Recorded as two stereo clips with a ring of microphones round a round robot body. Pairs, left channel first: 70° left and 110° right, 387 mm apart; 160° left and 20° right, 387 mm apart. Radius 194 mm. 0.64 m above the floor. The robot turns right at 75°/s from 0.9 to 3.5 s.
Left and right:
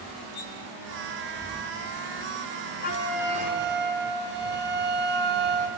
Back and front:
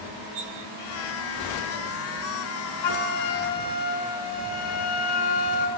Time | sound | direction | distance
0.3 | cutlery clinking | 5° left | 6 m
2.8 | a flute | 135° left | 3 m